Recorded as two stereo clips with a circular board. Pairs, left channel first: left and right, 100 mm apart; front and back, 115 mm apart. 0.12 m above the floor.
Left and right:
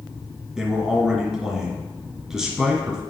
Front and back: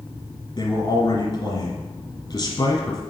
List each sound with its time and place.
0.6 s a man speaking: 5° right, 1.8 m